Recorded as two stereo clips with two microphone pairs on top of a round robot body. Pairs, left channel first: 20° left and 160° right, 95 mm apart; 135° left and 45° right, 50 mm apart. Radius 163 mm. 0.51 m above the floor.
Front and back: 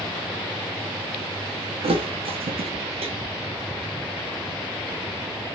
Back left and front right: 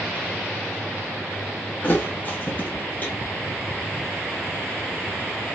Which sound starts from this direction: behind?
A thud, at 1.8 s.